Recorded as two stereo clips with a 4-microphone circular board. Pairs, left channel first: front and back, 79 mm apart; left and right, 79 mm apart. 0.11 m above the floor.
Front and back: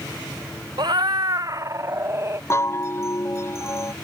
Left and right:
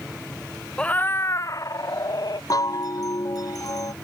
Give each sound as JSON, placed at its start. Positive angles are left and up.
{"t": 0.8, "sound": "a cat meowing", "azimuth_deg": 170}
{"t": 2.5, "sound": "a chime", "azimuth_deg": 55}